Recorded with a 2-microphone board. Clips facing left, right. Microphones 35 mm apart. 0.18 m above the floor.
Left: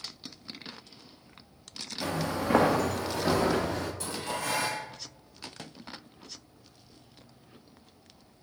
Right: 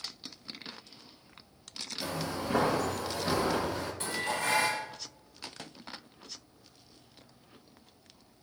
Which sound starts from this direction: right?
Dishes clattering, at 4.0 s.